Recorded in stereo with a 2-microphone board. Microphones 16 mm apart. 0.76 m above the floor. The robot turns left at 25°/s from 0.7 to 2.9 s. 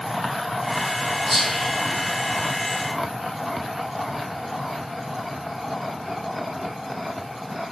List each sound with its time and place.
1.3 s whispering: 40° right (ahead or behind), 1.4 m; by 2.8 s 55° right (ahead or behind), 1.4 m